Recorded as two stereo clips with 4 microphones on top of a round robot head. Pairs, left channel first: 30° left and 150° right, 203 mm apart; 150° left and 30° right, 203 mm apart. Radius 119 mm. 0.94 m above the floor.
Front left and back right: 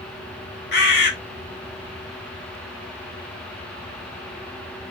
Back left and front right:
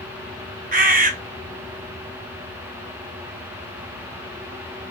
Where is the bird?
10° left, 1.4 m.